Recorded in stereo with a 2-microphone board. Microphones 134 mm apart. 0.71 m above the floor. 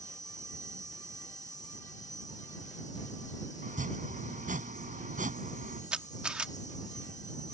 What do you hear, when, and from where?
0.0 s an insect: 60° left (ahead or behind)
3.6 s chopping: 80° right
5.9 s a camera shutter: 5° right (ahead or behind)